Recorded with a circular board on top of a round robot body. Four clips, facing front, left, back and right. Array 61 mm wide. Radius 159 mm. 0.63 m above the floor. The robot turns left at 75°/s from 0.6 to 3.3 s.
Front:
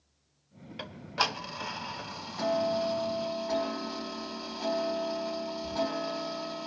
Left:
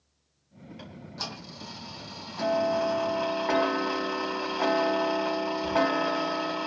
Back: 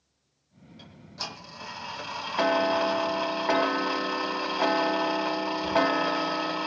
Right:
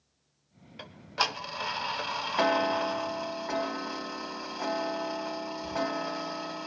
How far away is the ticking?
About 1.7 m.